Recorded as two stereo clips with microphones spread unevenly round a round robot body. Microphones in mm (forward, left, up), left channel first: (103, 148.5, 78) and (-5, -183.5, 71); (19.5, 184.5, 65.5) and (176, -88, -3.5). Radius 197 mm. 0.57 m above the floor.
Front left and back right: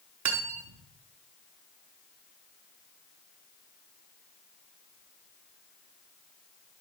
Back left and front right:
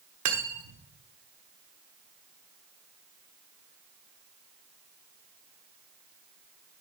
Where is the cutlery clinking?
70° right, 0.9 m.